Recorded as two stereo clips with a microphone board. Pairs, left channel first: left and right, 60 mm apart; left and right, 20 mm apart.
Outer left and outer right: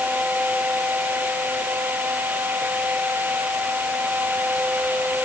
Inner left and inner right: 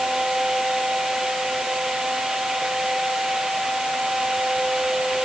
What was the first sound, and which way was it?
Only background noise.